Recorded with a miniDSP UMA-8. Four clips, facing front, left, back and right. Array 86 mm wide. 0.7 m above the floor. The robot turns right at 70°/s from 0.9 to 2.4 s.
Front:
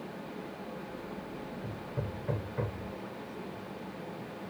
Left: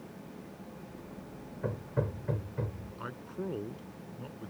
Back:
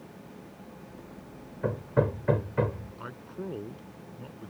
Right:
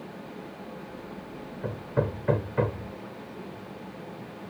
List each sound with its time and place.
1.6 s hammering: straight behind; by 2.9 s 125° right
3.0 s a man speaking: 135° left